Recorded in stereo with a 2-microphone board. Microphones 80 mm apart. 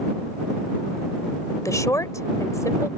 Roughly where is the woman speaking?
Left.